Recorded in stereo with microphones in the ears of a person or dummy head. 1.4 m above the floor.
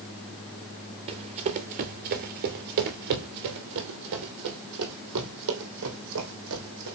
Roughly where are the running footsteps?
Right.